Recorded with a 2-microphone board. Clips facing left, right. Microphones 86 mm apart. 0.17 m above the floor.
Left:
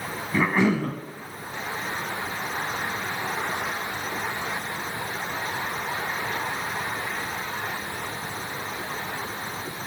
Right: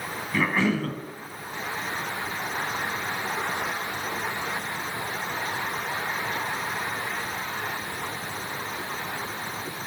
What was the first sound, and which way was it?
A cough, 20° left (ahead or behind).